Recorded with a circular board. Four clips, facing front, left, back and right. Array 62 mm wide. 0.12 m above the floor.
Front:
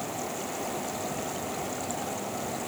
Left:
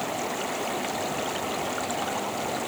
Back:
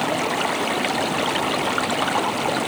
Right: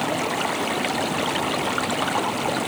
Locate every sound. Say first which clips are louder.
0.0 s running water: right 6 dB, back 12 dB; 150° right